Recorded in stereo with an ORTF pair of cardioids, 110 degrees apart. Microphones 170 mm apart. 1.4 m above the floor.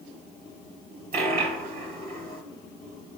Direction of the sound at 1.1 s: 55° right.